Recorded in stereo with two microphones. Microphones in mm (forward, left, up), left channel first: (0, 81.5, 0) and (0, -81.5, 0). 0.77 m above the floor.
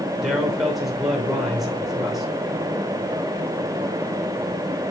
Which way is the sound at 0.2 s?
Centre (ahead or behind).